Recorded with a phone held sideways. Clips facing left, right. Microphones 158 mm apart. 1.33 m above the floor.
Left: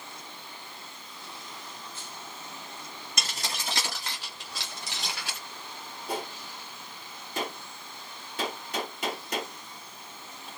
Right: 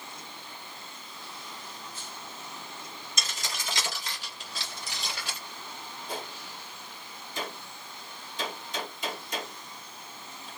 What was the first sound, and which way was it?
Keys jangling, 75° left (ahead or behind).